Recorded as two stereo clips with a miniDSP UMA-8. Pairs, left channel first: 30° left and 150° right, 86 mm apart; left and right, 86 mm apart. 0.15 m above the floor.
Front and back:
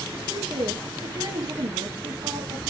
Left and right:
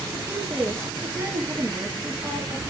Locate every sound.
0.1 s a woman speaking: 150° right, 3 m